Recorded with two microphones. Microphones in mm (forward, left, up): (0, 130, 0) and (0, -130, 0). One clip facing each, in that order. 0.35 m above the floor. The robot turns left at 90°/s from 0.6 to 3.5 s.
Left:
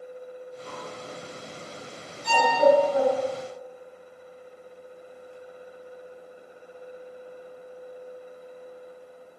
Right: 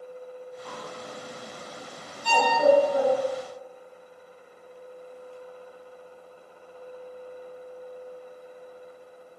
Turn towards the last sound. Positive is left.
turn(degrees=-115)